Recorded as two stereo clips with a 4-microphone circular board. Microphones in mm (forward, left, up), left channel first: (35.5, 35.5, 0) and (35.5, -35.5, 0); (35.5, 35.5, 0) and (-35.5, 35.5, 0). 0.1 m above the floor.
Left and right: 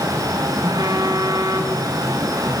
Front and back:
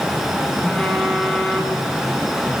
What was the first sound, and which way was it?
A phone buzzing, 85° right.